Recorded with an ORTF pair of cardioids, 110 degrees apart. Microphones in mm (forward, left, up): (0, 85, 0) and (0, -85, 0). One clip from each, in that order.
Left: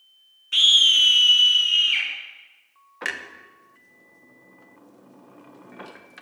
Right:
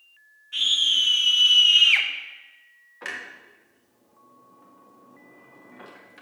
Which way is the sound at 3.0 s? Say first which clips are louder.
Left 4 dB; 35° left.